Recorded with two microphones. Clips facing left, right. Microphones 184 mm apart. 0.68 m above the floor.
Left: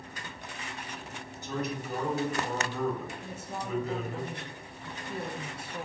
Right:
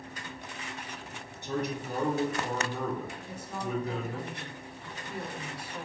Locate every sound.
1.4 s a man speaking: 65° right (ahead or behind), 1.7 m
3.2 s a woman speaking: 25° left (ahead or behind), 0.8 m